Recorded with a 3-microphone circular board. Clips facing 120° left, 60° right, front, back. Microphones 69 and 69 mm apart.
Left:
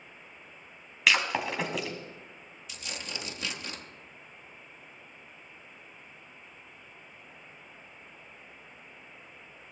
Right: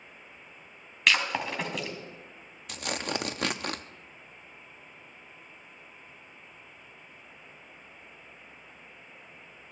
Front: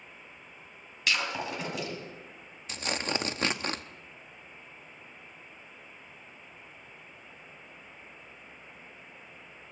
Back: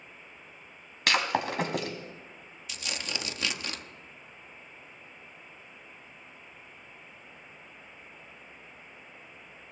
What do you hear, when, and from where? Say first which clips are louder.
1.1 s breaking glass: even, back 4 dB; 150° right, 2.5 m
2.7 s tearing paper: right 8 dB, front 5 dB; 45° right, 0.7 m